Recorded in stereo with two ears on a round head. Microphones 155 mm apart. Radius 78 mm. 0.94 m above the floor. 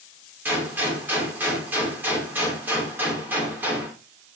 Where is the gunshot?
10° right (ahead or behind), 2.5 m.